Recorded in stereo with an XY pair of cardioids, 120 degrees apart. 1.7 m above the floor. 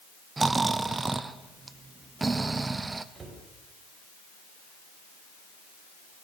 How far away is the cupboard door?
About 7 m.